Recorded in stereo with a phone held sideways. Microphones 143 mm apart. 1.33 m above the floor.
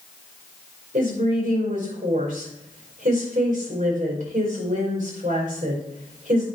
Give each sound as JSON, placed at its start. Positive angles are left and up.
{"t": 0.9, "sound": "a woman speaking", "side_deg": -85, "distance_m": 5.0}